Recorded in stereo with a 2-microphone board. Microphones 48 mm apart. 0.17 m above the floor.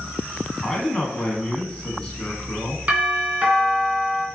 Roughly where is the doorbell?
Right.